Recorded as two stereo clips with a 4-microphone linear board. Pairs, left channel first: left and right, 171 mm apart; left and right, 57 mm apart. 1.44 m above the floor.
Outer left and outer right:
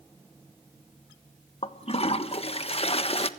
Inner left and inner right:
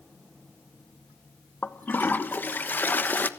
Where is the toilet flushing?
35° left (ahead or behind), 1.3 m.